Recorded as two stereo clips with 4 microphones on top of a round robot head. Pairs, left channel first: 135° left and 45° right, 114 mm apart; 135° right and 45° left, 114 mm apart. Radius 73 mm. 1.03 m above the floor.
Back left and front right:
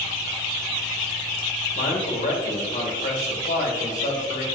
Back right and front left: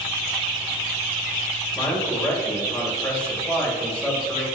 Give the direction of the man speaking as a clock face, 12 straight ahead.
7 o'clock.